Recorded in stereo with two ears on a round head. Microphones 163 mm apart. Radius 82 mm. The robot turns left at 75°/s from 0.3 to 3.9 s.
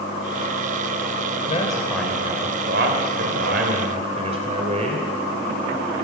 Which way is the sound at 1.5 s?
40° left.